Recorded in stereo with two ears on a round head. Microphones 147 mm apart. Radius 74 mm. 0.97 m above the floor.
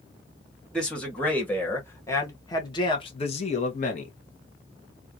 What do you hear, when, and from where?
0.7 s a man speaking: 5° left (ahead or behind), 2 m; by 4.1 s 50° left (ahead or behind), 1.0 m